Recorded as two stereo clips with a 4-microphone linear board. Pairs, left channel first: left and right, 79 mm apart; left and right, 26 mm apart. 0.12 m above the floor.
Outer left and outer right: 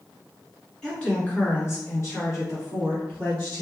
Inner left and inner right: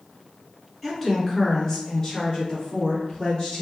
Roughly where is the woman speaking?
Centre.